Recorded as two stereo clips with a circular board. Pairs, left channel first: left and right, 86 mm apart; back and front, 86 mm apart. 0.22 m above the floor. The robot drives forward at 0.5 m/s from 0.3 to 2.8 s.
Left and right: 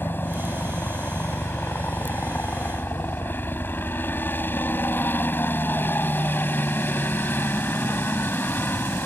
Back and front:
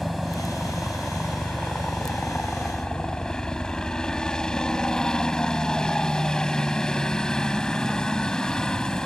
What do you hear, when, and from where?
0.0 s a helicopter: 90° left; by 9.1 s 110° left